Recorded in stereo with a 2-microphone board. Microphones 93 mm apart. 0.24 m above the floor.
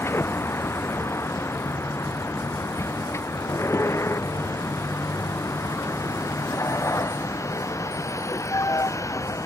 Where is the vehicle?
25° left (ahead or behind); by 9.4 s 35° left (ahead or behind).